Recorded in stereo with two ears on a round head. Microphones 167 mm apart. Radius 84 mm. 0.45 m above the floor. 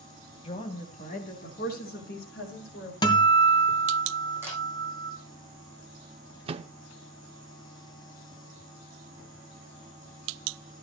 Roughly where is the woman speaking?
Left.